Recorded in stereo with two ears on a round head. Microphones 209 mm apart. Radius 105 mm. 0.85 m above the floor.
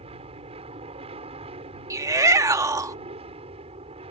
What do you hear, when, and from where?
0.0 s an aircraft: 25° right (ahead or behind)
1.9 s a shout: 15° right (ahead or behind)